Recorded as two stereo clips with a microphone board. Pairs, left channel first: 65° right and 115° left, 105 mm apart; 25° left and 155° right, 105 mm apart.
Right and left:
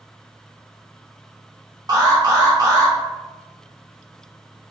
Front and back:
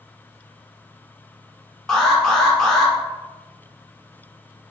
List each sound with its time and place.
1.9 s an alarm: 105° left, 0.7 m